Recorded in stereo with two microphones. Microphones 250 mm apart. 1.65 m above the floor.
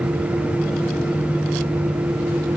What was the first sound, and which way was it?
Only background noise.